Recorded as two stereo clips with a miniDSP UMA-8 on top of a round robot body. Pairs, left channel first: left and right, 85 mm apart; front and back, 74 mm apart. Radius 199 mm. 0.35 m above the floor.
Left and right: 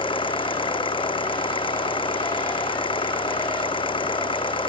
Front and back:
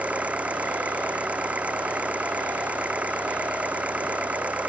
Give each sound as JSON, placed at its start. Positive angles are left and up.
{"t": 0.0, "sound": "an engine running", "azimuth_deg": 105}